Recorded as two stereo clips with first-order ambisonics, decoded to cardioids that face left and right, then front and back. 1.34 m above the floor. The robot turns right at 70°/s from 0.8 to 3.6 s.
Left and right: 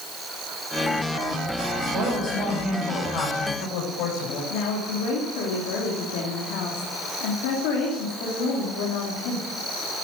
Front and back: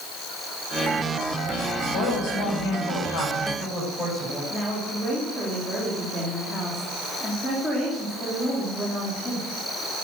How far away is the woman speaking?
About 3 m.